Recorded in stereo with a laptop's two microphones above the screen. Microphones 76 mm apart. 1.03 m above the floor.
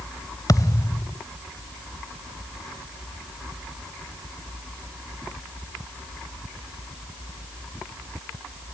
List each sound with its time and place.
0.5 s a thud: 50° left (ahead or behind)